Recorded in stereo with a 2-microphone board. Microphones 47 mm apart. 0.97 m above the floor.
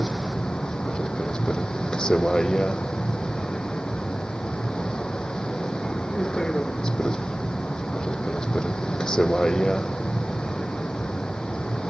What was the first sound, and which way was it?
A vehicle, 15° left (ahead or behind).